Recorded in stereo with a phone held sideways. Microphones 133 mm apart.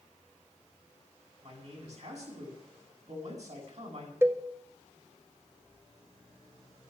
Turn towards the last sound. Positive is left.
turn(degrees=-20)  # may be behind; listen again after turning